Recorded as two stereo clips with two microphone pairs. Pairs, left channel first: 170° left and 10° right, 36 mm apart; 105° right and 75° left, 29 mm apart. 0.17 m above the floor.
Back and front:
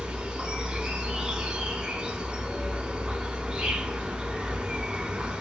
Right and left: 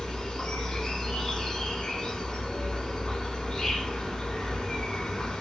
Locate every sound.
0.0 s an insect: 55° right, 0.8 m